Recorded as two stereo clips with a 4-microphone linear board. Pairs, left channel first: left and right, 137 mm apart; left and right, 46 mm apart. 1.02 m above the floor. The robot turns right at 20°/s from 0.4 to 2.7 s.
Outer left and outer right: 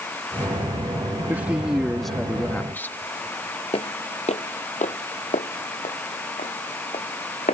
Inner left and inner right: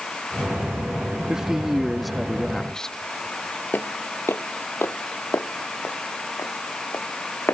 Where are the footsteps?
45° left (ahead or behind); by 7.5 s 60° left (ahead or behind).